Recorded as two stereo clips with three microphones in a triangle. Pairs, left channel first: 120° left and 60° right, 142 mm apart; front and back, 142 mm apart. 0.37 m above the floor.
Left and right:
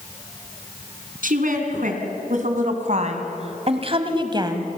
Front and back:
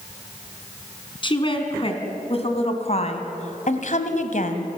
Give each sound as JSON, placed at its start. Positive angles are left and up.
{"t": 1.2, "sound": "a woman speaking", "azimuth_deg": -55, "distance_m": 3.0}